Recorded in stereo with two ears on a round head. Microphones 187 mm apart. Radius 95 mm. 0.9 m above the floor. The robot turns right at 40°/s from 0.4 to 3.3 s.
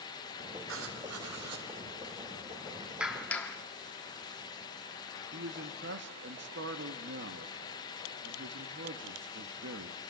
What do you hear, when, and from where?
0.7 s writing: 115° right, 2.5 m; by 1.7 s 75° right, 2.5 m
3.0 s a clap: 5° right (ahead or behind), 1.5 m; by 3.6 s 5° left (ahead or behind), 1.5 m
5.3 s a man speaking: 60° right (ahead or behind), 1.5 m